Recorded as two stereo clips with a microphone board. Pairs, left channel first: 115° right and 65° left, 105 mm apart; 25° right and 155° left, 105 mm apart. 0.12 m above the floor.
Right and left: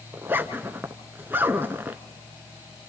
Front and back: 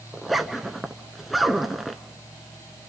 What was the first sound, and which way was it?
A zipper, 70° left.